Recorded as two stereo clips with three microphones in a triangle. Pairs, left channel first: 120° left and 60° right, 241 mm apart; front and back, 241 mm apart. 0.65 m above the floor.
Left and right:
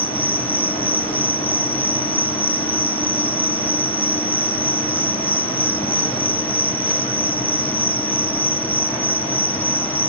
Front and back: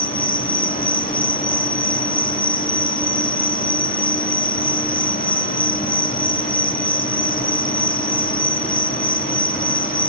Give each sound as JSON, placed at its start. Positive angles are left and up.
{"t": 0.0, "sound": "an insect", "azimuth_deg": 40, "distance_m": 0.9}